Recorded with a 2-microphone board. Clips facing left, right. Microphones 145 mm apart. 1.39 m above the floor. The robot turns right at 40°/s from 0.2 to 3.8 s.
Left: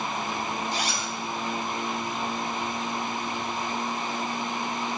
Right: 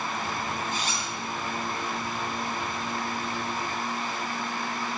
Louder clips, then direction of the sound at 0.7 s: Left 2 dB; 80° left.